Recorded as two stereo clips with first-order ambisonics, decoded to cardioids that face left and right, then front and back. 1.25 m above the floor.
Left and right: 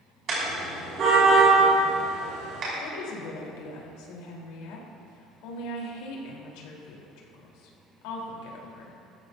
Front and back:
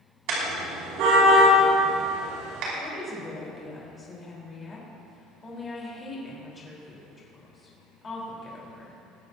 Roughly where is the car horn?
Behind right.